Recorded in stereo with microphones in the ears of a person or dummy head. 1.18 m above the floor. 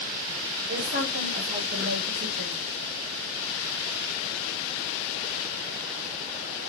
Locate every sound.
0.7 s a woman speaking: 80° right, 3.5 m; by 2.6 s 85° right, 2.5 m